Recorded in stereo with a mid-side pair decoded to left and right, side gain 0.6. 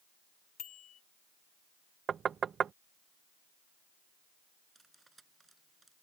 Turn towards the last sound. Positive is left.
turn(degrees=-20)